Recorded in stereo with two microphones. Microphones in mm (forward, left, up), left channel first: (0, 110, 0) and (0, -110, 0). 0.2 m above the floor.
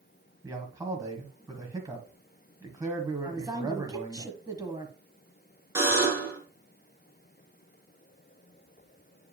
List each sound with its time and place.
0.4 s a man speaking: 15° right (ahead or behind), 1.1 m
3.2 s a woman speaking: 20° right (ahead or behind), 1.2 m
5.8 s a buzzer: 10° right (ahead or behind), 3.5 m